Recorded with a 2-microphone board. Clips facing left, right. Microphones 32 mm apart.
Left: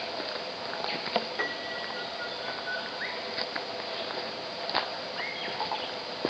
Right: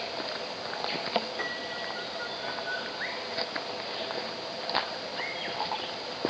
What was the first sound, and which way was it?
A piano, 15° left (ahead or behind).